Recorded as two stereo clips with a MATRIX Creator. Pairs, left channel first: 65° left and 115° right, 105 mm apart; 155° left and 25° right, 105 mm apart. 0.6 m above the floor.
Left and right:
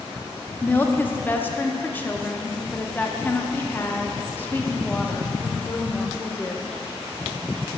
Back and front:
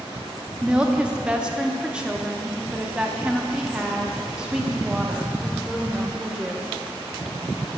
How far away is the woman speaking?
About 0.6 m.